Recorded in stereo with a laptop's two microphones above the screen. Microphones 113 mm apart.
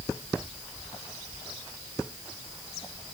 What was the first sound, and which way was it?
Only background noise.